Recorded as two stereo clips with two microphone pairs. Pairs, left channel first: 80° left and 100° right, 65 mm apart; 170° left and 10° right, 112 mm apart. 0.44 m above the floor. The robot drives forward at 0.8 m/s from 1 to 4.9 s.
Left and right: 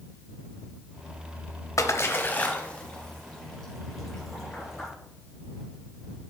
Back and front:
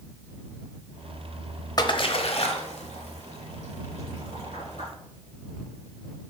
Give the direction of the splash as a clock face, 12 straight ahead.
8 o'clock.